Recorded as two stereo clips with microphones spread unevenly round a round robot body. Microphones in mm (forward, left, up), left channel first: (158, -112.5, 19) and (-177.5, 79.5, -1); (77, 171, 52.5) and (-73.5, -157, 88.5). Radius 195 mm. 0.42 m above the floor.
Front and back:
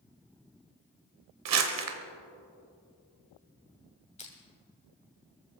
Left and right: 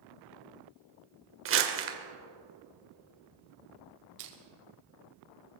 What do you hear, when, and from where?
1.4 s crumpling: 170° right, 1.6 m
4.2 s crushing: 105° right, 2.5 m